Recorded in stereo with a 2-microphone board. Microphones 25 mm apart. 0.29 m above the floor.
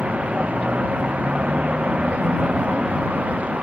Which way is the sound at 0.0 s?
65° right (ahead or behind).